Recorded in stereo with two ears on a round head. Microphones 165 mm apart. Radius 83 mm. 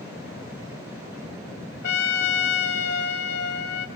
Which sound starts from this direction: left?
A trumpet, at 1.8 s.